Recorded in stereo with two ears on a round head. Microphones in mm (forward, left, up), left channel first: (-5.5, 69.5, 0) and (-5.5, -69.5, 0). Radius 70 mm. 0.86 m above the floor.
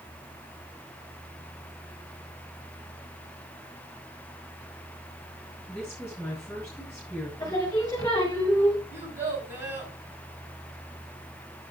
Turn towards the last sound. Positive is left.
turn(degrees=-15)  # may be behind; listen again after turning